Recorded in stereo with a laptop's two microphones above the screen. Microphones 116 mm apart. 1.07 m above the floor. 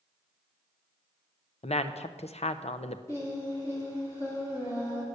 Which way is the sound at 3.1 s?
25° left (ahead or behind).